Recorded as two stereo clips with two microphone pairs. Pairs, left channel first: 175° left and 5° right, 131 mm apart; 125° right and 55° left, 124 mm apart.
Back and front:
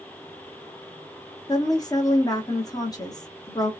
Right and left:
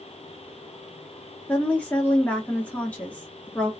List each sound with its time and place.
1.5 s a woman speaking: 175° left, 0.7 m